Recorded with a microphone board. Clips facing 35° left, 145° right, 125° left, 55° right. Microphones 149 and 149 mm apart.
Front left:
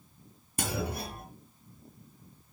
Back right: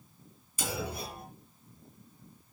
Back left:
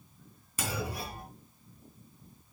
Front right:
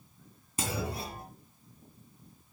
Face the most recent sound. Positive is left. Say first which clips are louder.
# front left 2 dB, front right 1 dB
turn(degrees=5)